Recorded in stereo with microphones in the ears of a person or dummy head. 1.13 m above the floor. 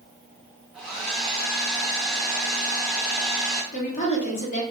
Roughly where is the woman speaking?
Left.